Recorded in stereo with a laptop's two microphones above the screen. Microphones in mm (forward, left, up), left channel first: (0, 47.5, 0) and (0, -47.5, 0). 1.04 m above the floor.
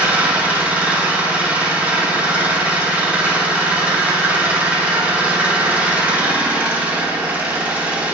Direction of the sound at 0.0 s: 15° right (ahead or behind).